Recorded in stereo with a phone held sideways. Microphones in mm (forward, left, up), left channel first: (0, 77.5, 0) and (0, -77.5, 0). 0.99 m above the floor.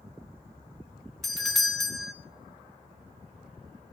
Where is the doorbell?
Centre (ahead or behind), 0.6 m.